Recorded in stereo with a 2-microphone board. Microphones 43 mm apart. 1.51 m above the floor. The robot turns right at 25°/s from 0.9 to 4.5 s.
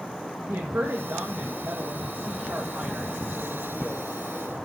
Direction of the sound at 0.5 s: 95° right.